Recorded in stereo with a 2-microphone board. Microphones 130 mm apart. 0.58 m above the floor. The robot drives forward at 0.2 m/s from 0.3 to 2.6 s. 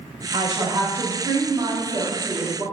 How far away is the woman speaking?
About 0.9 m.